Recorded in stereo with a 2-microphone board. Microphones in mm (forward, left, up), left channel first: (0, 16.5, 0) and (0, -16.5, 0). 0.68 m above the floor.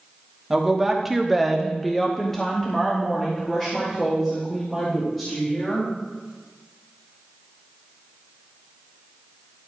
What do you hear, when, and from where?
0.5 s a woman speaking: 10° right (ahead or behind), 1.3 m; by 5.9 s 15° left (ahead or behind), 4 m